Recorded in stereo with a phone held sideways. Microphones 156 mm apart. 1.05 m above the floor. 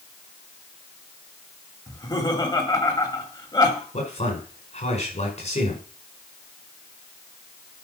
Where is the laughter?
25° left (ahead or behind), 2.5 m.